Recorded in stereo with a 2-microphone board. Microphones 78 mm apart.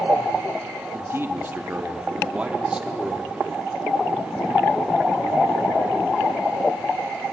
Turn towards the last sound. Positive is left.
turn(degrees=-10)  # may be behind; listen again after turning